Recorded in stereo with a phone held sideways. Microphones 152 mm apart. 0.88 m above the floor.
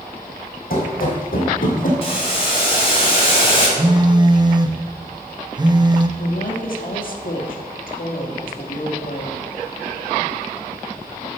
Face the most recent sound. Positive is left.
turn(degrees=65)  # may be behind; listen again after turning